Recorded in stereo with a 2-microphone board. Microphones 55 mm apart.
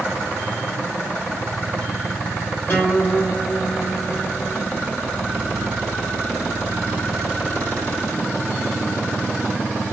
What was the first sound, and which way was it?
A guitar, 40° left (ahead or behind).